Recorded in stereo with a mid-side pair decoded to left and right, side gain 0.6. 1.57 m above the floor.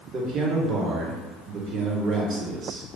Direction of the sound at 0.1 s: 40° right.